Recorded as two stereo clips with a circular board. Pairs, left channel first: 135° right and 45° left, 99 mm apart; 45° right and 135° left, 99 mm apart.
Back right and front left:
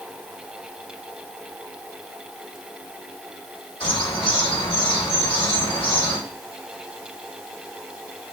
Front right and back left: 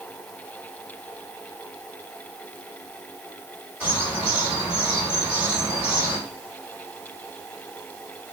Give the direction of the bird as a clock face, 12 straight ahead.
5 o'clock.